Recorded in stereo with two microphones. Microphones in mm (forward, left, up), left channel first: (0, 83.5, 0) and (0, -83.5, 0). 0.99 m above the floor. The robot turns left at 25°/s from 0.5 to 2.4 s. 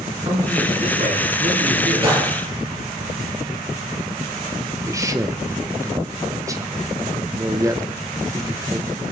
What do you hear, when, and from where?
0.2 s a man speaking: 45° right, 8.5 m; by 2.1 s 85° right, 8.5 m
2.0 s a gunshot: 35° right (ahead or behind), 5 m; by 2.3 s 30° right (ahead or behind), 5 m
4.9 s a man speaking: 20° right (ahead or behind), 0.8 m